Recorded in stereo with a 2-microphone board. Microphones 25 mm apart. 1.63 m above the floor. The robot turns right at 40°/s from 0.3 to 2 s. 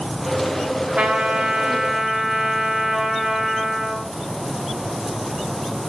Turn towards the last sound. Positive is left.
turn(degrees=-25)